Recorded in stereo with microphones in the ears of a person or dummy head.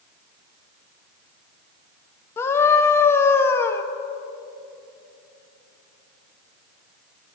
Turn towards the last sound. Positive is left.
turn(degrees=15)  # may be behind; listen again after turning